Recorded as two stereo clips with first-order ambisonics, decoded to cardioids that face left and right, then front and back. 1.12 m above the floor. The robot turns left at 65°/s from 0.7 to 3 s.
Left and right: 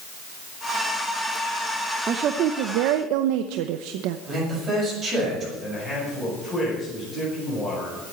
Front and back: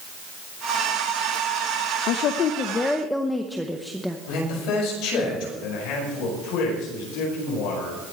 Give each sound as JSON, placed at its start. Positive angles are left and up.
{"t": 2.1, "sound": "a woman speaking", "azimuth_deg": -25, "distance_m": 0.7}
{"t": 4.3, "sound": "a man speaking", "azimuth_deg": -25, "distance_m": 6.5}
{"t": 5.6, "sound": "a man speaking", "azimuth_deg": 5, "distance_m": 9.0}